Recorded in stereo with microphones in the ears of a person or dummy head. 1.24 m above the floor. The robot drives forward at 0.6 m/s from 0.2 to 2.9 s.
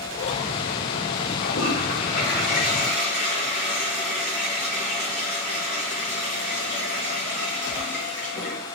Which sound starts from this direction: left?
A toilet flushing, at 1.4 s.